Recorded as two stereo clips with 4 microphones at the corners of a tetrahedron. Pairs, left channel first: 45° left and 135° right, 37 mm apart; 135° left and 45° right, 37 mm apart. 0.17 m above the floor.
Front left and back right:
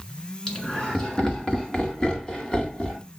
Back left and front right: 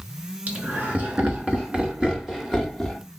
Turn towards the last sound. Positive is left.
turn(degrees=50)